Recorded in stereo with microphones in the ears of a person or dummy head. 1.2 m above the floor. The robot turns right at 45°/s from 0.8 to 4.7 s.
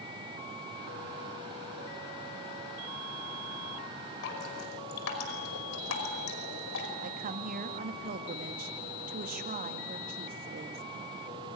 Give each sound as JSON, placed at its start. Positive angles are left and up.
{"t": 4.2, "sound": "dripping", "side_deg": 65, "distance_m": 5.0}
{"t": 7.0, "sound": "a woman speaking", "side_deg": -35, "distance_m": 1.8}